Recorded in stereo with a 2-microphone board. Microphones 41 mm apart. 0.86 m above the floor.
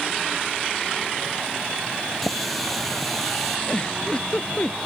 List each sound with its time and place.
2.2 s a running tap: centre (ahead or behind)
3.7 s a giggle: 25° left (ahead or behind)